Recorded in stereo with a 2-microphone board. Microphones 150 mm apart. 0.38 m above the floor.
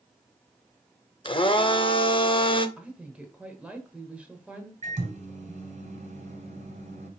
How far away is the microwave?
About 1.8 m.